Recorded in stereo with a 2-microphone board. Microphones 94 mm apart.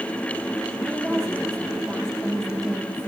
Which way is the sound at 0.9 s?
5° left (ahead or behind).